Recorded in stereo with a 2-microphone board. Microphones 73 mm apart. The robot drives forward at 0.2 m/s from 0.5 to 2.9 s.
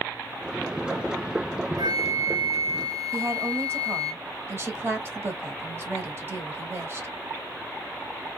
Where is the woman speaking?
35° right (ahead or behind), 1.0 m.